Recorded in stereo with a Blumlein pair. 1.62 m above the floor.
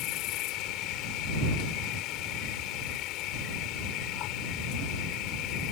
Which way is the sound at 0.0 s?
40° left.